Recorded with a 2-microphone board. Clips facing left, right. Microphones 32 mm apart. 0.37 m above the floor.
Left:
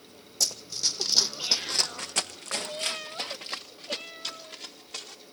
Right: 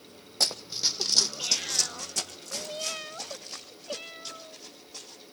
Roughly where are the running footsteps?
Right.